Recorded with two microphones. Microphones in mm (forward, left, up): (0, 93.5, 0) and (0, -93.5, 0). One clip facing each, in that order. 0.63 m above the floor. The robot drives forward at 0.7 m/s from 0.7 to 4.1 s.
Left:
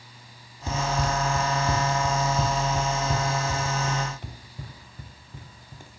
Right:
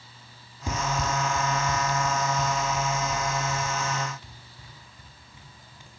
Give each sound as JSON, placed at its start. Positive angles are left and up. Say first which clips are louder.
{"t": 0.7, "sound": "running footsteps", "louder": "left 2 dB", "side_deg": -15, "distance_m": 0.7}